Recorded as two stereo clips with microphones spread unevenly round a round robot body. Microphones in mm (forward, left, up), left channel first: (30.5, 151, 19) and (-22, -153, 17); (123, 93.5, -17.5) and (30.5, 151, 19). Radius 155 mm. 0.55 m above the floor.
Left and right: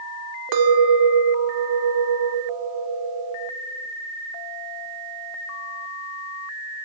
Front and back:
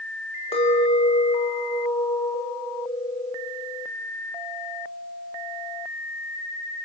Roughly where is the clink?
Right.